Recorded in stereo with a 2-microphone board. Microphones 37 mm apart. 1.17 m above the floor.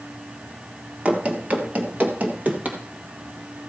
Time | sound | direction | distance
1.1 | running footsteps | 40° right (ahead or behind) | 1.6 m